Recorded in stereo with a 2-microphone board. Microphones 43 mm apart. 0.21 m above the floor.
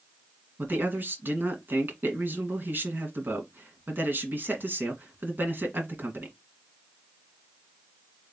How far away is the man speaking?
About 1.6 m.